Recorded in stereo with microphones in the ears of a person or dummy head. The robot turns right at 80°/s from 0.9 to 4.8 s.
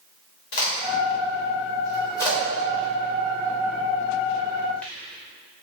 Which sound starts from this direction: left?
A crack, at 0.5 s.